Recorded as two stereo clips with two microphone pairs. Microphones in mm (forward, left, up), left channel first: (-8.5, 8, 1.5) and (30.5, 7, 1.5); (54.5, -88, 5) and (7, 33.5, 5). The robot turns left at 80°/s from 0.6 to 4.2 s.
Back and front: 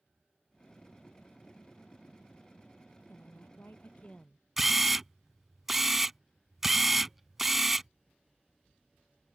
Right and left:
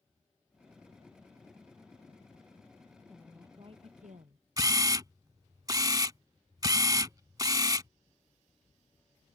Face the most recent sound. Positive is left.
turn(degrees=80)